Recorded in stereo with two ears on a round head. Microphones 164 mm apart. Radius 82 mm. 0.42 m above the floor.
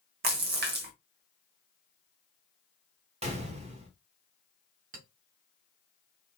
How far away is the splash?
About 1.1 m.